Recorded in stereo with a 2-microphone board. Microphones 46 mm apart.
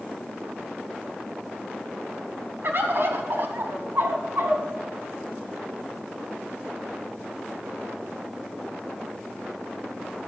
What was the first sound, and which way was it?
A bird, 55° right (ahead or behind).